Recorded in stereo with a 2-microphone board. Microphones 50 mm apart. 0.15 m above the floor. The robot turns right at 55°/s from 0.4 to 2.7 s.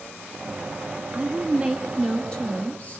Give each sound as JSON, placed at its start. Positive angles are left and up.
{"t": 1.1, "sound": "a woman speaking", "azimuth_deg": -45, "distance_m": 2.0}